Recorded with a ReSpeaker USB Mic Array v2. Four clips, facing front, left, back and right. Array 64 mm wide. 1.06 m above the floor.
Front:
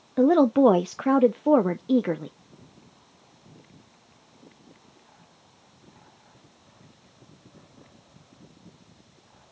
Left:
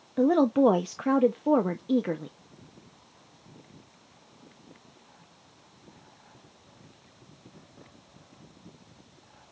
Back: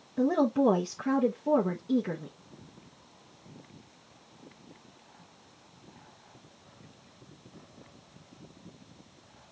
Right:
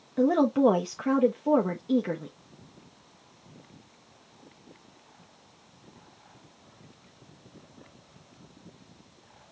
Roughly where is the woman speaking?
Ahead.